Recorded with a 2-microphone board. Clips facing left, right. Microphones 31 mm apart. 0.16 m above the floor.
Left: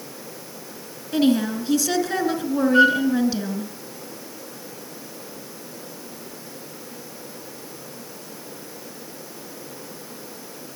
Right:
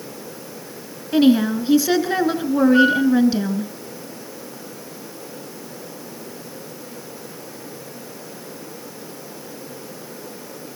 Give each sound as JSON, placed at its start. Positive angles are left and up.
{"t": 1.1, "sound": "a woman speaking", "side_deg": -20, "distance_m": 2.0}
{"t": 2.7, "sound": "a flute", "side_deg": 5, "distance_m": 5.0}